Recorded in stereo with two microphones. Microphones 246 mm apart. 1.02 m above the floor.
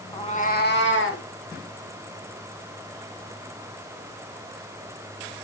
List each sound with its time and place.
0.1 s a cat meowing: 20° left (ahead or behind), 1.5 m; by 1.2 s 60° left (ahead or behind), 2.5 m